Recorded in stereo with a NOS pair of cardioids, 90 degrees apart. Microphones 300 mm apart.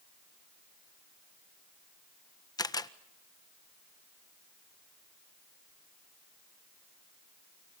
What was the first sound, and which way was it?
A camera shutter, 15° left.